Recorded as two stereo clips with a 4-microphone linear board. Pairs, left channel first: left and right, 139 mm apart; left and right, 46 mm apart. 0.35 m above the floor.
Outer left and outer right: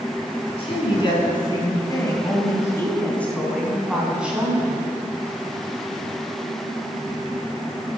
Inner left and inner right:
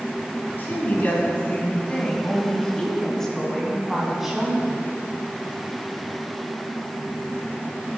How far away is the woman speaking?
About 4 m.